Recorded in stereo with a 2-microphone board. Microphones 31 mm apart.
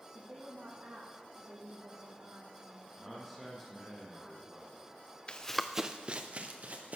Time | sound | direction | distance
0.1 | a woman speaking | 60° right (ahead or behind) | 7 m
3.0 | a man speaking | 10° left (ahead or behind) | 4.5 m
5.3 | running footsteps | 35° left (ahead or behind) | 0.9 m